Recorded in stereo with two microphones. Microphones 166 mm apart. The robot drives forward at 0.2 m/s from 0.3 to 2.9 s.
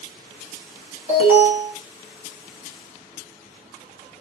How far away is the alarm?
About 1.8 m.